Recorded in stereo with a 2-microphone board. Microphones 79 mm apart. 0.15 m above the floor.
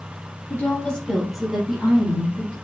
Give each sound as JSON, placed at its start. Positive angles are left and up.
{"t": 0.5, "sound": "a woman speaking", "side_deg": 20, "distance_m": 1.5}